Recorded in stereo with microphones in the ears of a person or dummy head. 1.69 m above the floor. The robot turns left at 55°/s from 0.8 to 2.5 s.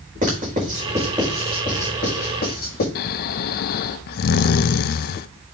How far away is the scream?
I don't hear a scream.